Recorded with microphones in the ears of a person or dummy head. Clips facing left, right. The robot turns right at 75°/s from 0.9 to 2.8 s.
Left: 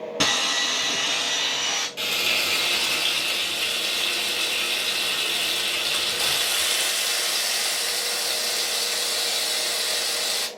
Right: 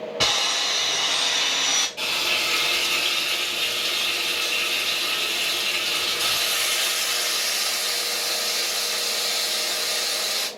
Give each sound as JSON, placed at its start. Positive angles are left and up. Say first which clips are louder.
{"t": 0.2, "sound": "sawing", "louder": "left 1 dB", "azimuth_deg": 145, "distance_m": 1.2}
{"t": 2.0, "sound": "frying", "louder": "left 1 dB", "azimuth_deg": 25, "distance_m": 1.0}